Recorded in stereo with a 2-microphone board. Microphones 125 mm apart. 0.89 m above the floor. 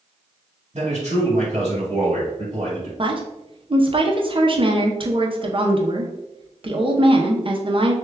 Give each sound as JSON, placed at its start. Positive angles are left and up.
{"t": 0.7, "sound": "a man speaking", "side_deg": -60, "distance_m": 1.9}
{"t": 3.0, "sound": "a woman speaking", "side_deg": -45, "distance_m": 0.7}